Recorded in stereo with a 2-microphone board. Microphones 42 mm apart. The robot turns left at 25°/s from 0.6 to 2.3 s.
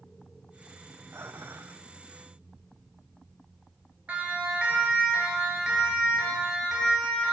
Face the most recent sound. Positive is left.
turn(degrees=-10)  # may be behind; listen again after turning